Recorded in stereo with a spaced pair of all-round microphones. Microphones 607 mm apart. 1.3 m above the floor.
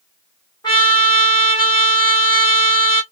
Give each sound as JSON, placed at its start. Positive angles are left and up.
{"t": 0.6, "sound": "a trumpet", "side_deg": 10, "distance_m": 1.0}